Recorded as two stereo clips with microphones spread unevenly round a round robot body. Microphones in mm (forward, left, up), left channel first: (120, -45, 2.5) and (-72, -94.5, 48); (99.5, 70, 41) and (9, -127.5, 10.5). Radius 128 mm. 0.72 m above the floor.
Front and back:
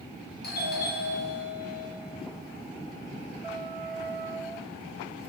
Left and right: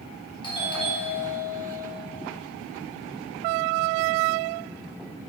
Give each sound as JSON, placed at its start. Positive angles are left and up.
{"t": 0.4, "sound": "a doorbell", "azimuth_deg": -5, "distance_m": 3.0}